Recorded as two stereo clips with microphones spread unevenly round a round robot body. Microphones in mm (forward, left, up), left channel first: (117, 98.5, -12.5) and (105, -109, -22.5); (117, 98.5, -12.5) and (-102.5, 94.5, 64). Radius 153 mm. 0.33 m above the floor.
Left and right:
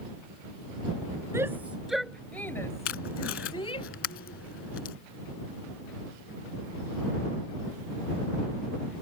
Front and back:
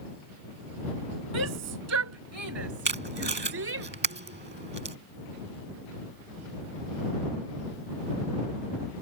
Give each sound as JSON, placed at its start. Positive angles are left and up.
{"t": 1.3, "sound": "a shout", "azimuth_deg": -175}
{"t": 2.9, "sound": "tape being pulled", "azimuth_deg": 135}